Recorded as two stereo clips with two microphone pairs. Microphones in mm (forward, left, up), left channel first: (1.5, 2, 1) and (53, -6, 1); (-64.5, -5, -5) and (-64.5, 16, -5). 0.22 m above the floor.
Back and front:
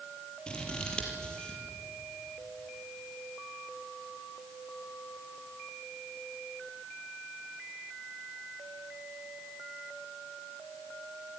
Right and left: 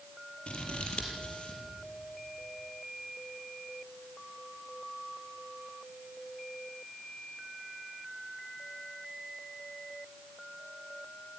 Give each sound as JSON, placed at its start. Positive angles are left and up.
{"t": 0.5, "sound": "scissors", "azimuth_deg": -120, "distance_m": 4.0}